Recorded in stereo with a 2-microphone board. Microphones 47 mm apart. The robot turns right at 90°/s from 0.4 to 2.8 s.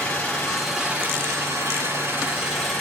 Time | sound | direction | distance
0.0 | an engine running | 155° left | 6 m